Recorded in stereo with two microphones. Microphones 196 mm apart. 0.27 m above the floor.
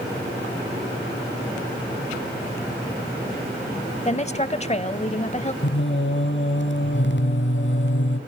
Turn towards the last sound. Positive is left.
turn(degrees=60)  # may be behind; listen again after turning